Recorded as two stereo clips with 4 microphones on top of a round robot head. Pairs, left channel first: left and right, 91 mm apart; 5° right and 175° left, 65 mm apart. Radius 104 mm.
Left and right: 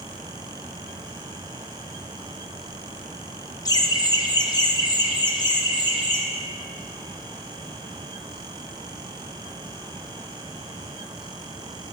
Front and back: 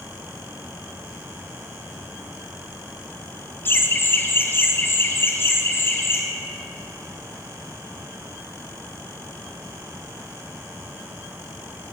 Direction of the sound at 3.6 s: 45° left.